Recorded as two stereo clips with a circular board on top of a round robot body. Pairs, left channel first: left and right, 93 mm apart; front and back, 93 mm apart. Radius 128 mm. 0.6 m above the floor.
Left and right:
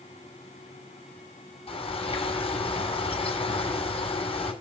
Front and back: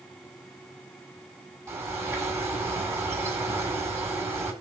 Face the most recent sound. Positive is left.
turn(degrees=115)